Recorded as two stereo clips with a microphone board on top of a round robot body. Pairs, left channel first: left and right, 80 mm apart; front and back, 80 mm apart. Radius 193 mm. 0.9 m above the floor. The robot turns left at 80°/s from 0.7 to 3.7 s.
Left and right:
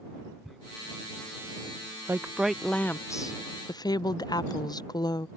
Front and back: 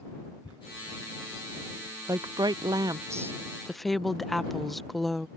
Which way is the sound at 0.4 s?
Straight ahead.